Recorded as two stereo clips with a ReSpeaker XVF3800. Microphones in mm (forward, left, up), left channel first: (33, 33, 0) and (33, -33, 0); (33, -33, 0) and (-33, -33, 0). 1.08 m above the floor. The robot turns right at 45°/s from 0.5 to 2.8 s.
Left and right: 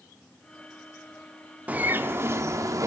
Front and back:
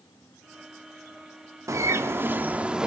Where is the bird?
155° right, 0.8 m; by 2.9 s 105° right, 0.8 m.